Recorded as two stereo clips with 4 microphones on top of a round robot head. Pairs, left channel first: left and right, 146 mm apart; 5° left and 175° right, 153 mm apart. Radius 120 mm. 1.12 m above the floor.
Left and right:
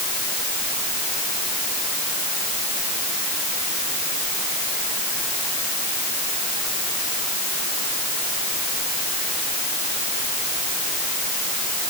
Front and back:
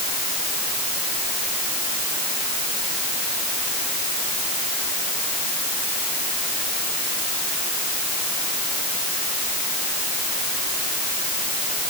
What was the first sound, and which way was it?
Only background noise.